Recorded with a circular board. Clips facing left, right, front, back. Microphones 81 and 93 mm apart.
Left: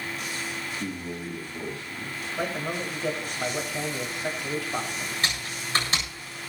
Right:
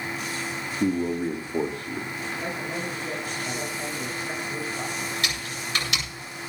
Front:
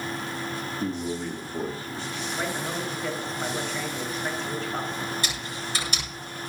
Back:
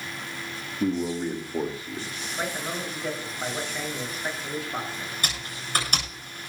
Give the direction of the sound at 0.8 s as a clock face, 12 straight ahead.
4 o'clock.